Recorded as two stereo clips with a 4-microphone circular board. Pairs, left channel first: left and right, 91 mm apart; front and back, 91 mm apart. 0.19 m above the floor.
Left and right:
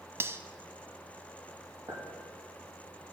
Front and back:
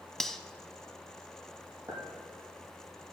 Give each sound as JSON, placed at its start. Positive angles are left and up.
{"t": 0.2, "sound": "cutlery clinking", "azimuth_deg": -80, "distance_m": 0.6}
{"t": 1.9, "sound": "a clink", "azimuth_deg": -140, "distance_m": 4.5}